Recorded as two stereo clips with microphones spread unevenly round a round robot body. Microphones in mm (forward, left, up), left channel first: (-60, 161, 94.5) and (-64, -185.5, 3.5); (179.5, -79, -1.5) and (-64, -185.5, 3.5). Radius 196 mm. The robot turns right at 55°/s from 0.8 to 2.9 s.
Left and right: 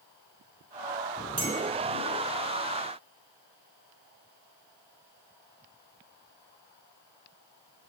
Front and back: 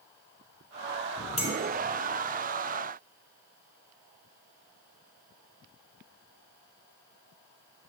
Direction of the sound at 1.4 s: 35° right.